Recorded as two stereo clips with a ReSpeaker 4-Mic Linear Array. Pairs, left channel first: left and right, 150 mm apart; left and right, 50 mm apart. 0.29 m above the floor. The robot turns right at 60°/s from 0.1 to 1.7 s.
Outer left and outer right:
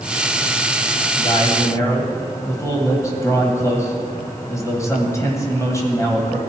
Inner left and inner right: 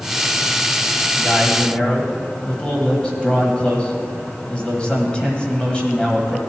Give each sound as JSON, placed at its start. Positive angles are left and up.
{"t": 1.2, "sound": "a man speaking", "azimuth_deg": 120, "distance_m": 1.7}